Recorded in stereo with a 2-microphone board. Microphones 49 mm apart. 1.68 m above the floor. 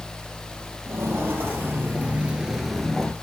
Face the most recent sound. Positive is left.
turn(degrees=15)  # may be behind; listen again after turning